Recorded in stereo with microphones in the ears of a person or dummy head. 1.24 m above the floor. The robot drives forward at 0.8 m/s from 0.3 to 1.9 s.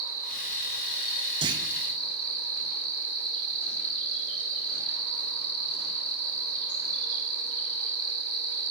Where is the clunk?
20° right (ahead or behind), 0.7 m.